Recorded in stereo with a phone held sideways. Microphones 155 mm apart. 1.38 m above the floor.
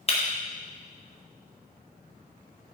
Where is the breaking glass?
40° left (ahead or behind), 1.5 m.